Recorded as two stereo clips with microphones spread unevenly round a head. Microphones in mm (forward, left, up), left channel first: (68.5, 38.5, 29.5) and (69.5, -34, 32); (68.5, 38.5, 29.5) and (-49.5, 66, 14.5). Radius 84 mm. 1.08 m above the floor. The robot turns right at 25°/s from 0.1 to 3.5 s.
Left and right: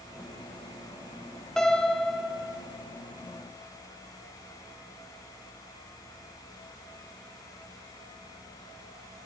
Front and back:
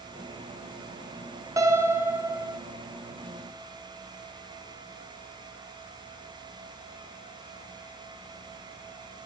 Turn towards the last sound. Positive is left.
turn(degrees=-145)